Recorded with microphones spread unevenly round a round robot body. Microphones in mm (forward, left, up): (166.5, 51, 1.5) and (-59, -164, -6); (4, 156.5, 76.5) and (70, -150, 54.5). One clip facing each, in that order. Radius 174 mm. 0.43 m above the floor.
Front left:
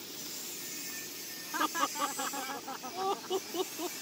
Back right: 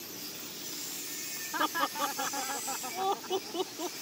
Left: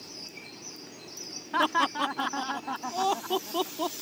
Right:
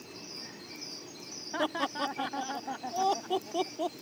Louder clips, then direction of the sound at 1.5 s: Back right 1 dB, left 2 dB; 125° left.